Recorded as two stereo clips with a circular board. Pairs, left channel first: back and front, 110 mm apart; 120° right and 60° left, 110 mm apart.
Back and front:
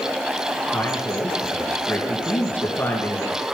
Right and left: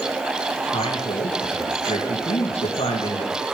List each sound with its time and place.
0.7 s a man speaking: 110° right, 4 m